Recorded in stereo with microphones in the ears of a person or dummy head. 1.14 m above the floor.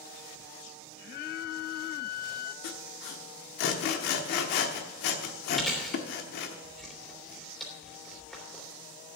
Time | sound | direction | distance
1.1 | a flute | 55° left (ahead or behind) | 0.6 m
2.6 | sawing | 50° left (ahead or behind) | 1.0 m
5.5 | chewing | 5° left (ahead or behind) | 2.5 m